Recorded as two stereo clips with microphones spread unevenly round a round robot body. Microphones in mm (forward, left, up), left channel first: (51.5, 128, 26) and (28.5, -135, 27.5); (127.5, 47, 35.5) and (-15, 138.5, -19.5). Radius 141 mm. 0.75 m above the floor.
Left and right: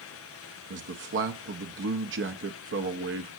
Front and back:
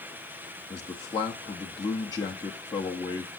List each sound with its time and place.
0.7 s a man speaking: 120° right, 0.7 m